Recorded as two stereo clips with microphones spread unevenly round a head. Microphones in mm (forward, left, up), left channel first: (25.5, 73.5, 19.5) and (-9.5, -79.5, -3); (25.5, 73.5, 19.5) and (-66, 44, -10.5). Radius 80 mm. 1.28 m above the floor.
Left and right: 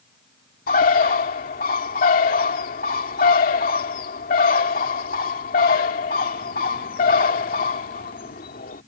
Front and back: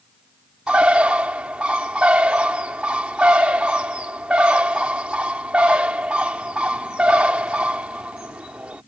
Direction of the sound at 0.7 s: 115° left.